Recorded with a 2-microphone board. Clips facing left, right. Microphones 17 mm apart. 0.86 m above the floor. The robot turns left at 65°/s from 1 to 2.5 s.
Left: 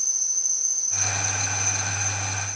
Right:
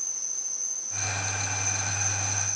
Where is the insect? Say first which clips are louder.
Left 7 dB; 60° left, 0.9 m; by 2.6 s 40° right, 0.9 m.